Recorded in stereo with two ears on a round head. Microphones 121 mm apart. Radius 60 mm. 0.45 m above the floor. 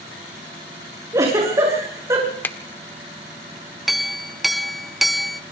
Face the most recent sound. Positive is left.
turn(degrees=0)  # may be behind; listen again after turning